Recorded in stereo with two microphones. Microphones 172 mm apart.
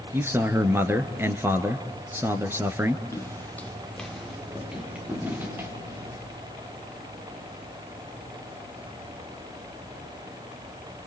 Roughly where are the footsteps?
Centre.